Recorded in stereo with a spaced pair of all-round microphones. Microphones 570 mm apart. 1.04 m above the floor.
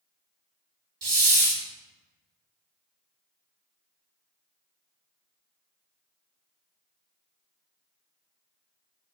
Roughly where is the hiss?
Right.